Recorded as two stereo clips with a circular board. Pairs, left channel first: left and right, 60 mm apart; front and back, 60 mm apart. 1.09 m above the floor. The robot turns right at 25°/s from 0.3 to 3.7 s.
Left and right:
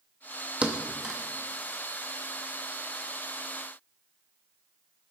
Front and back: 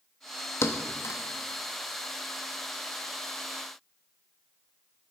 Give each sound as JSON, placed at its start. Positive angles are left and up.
{"t": 0.6, "sound": "a thud", "azimuth_deg": -25, "distance_m": 0.6}